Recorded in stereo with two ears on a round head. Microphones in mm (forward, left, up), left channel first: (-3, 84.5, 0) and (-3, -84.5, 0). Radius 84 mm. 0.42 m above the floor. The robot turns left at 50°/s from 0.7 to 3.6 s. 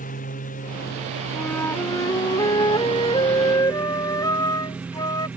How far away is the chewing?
No chewing in this recording.